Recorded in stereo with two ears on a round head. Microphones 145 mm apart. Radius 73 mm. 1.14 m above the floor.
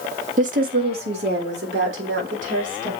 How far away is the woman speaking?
About 1.5 m.